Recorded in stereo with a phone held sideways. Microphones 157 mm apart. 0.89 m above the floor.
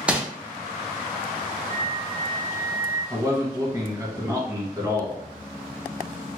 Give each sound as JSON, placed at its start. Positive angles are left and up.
{"t": 0.1, "sound": "crumpling", "side_deg": -5, "distance_m": 0.6}
{"t": 1.7, "sound": "a flute", "side_deg": -50, "distance_m": 1.4}
{"t": 3.1, "sound": "a man speaking", "side_deg": -20, "distance_m": 1.2}